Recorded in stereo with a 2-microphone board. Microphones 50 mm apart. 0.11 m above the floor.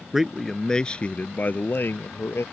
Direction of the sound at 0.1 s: 5° right (ahead or behind).